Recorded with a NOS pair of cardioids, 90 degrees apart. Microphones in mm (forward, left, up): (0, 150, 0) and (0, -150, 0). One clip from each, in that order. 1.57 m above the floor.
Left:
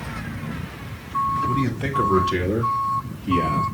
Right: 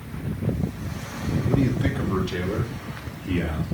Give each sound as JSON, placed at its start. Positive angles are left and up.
{"t": 1.5, "sound": "a man speaking", "azimuth_deg": 25, "distance_m": 2.5}